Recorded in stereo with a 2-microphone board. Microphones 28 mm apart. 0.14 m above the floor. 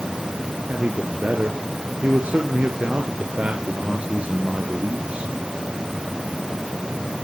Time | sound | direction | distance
0.7 | a man speaking | 55° right (ahead or behind) | 1.9 m